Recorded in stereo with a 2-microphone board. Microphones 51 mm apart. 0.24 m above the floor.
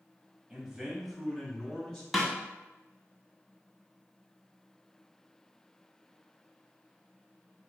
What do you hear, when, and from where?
0.5 s a man speaking: 20° right (ahead or behind), 1.0 m; by 2.0 s 15° left (ahead or behind), 1.3 m
2.1 s a snare drum: centre (ahead or behind), 0.9 m